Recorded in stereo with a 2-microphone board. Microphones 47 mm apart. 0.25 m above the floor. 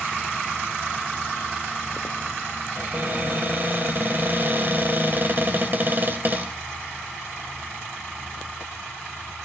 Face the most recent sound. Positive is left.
turn(degrees=-40)  # may be behind; listen again after turning